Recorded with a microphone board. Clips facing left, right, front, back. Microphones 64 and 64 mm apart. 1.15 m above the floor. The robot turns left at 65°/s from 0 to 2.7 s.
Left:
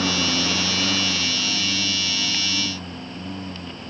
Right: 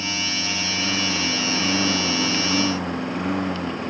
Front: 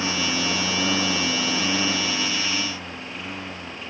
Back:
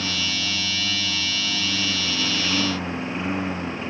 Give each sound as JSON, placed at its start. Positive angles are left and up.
{"t": 0.0, "sound": "a lawn mower", "azimuth_deg": 65}